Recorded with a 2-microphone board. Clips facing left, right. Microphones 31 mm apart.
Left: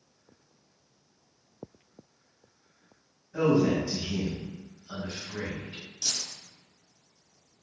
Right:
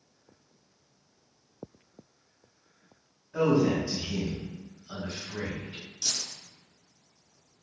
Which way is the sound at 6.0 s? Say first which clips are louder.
Even; 10° left (ahead or behind).